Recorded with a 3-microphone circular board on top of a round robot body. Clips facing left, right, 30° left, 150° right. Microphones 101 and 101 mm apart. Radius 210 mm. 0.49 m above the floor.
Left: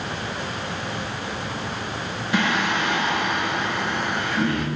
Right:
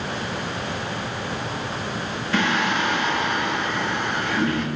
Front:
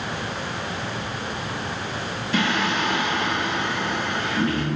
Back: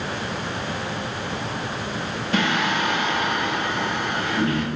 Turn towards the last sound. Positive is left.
turn(degrees=165)